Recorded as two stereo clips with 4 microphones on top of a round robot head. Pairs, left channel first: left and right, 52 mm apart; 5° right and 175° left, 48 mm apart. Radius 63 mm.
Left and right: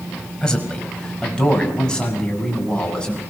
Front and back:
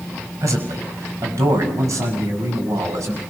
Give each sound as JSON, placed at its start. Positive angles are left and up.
{"t": 0.4, "sound": "a man speaking", "azimuth_deg": 165, "distance_m": 5.5}